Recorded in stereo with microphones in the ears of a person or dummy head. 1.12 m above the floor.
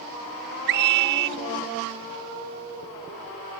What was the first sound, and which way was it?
A scream, 55° right (ahead or behind).